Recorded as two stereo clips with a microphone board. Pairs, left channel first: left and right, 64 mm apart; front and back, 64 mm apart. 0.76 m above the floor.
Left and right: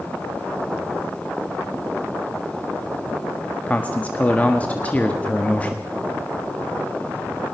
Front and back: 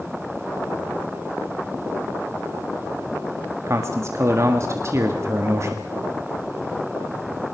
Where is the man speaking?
155° left, 1.5 m.